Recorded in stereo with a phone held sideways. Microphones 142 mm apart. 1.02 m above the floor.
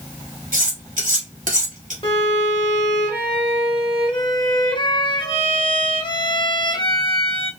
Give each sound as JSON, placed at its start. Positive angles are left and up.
{"t": 0.5, "sound": "cutlery clinking", "side_deg": -65, "distance_m": 1.4}
{"t": 2.0, "sound": "a violin", "side_deg": 40, "distance_m": 0.7}